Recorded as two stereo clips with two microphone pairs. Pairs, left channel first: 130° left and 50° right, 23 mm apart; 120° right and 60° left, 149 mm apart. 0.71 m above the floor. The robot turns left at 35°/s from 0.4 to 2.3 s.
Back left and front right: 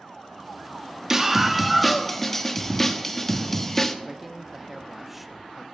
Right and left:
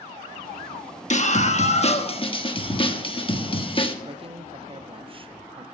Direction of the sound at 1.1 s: 120° right.